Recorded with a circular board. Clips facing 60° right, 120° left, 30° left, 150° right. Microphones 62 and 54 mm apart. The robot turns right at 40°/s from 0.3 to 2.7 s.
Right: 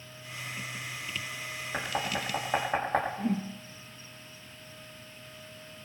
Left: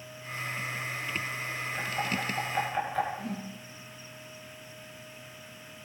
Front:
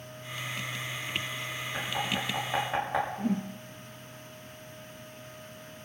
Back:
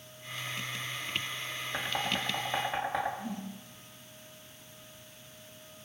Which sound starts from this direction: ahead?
A whoosh, at 3.2 s.